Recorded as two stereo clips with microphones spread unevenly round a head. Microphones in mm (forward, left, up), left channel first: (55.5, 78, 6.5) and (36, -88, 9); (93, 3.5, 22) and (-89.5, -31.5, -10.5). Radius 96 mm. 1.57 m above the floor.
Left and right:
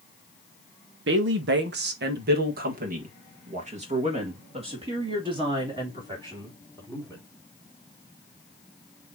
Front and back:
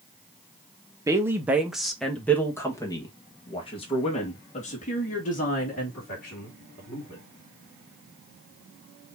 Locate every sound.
1.1 s a woman speaking: 95° right, 1.5 m; by 7.2 s 30° right, 3.5 m